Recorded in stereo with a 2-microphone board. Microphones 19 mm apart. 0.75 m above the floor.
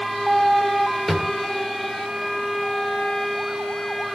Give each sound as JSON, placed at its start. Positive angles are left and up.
{"t": 1.1, "sound": "a drawer", "side_deg": 0, "distance_m": 1.3}